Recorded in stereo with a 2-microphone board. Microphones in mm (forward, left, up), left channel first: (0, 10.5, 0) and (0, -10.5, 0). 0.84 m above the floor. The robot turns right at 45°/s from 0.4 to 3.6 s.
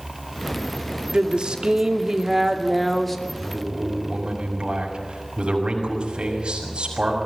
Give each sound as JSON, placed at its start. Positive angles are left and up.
{"t": 1.1, "sound": "a woman speaking", "azimuth_deg": -80, "distance_m": 2.0}
{"t": 3.3, "sound": "a man speaking", "side_deg": -45, "distance_m": 6.5}